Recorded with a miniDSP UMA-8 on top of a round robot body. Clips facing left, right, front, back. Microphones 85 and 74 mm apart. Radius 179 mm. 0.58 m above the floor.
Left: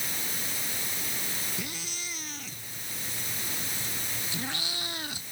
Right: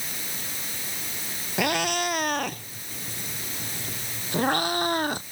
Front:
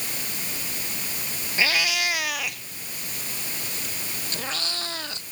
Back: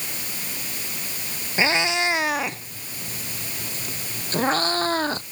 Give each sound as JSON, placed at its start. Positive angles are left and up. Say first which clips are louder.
{"t": 1.6, "sound": "a cat meowing", "louder": "right 15 dB, back 4 dB", "azimuth_deg": -115}